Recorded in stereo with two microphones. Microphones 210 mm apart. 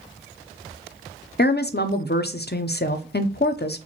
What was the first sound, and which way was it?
A woman speaking, 50° left (ahead or behind).